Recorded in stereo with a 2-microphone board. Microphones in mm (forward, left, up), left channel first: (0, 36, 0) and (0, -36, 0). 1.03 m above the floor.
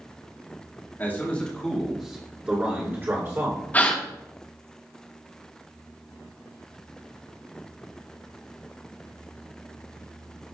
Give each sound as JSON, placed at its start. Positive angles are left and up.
{"t": 1.0, "sound": "a man speaking", "side_deg": 30, "distance_m": 2.5}
{"t": 3.7, "sound": "a gasp", "side_deg": 25, "distance_m": 1.1}